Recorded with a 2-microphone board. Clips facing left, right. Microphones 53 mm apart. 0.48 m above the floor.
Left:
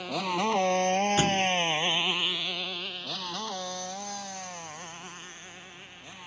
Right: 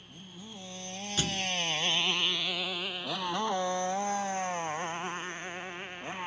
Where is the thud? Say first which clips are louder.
Left 8 dB; 30° left (ahead or behind).